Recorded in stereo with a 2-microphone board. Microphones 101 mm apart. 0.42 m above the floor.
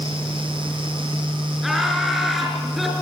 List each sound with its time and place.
1.6 s laughter: centre (ahead or behind), 6 m